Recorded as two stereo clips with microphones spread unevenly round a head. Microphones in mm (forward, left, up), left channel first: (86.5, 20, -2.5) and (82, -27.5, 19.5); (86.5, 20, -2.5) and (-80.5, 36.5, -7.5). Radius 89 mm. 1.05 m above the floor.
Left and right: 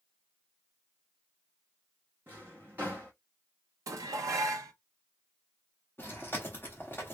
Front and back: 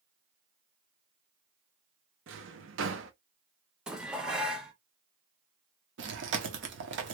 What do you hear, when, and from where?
2.3 s a drawer: 165° right, 0.7 m
3.9 s dishes clattering: 100° right, 0.5 m
6.0 s chewing: 170° left, 1.0 m